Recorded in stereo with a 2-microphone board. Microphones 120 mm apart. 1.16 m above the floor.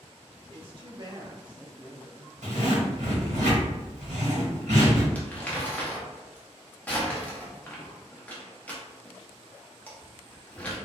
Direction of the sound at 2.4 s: 75° right (ahead or behind).